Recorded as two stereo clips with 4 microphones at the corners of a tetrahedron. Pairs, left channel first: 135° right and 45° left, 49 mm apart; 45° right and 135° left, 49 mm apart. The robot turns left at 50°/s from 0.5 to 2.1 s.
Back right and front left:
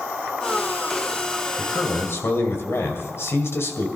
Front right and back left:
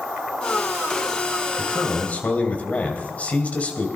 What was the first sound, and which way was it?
A man speaking, 80° right.